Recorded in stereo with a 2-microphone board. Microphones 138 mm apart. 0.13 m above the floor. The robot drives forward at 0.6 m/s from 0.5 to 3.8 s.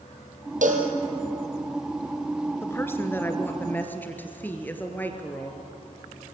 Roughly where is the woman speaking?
Centre.